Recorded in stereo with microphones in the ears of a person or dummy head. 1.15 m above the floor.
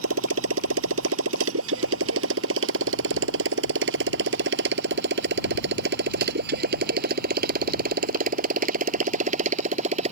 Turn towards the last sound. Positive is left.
turn(degrees=-45)  # may be behind; listen again after turning